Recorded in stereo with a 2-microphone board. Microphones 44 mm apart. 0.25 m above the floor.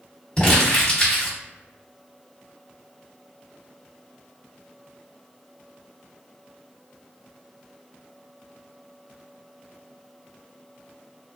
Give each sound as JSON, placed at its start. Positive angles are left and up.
{"t": 0.4, "sound": "crumpling", "side_deg": 25, "distance_m": 1.9}